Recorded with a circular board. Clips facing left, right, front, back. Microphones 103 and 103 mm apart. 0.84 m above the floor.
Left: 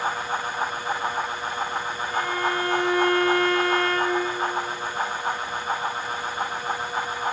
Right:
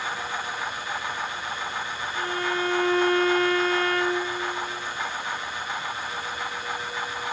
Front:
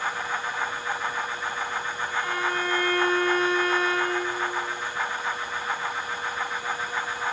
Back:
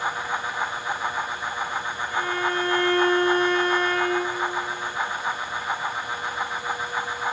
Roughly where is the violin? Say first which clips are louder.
Left 3 dB, back 3 dB; left.